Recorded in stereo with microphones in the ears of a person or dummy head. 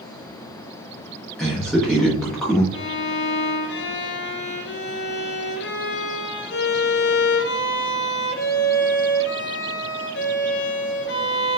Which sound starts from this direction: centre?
A man speaking, at 1.4 s.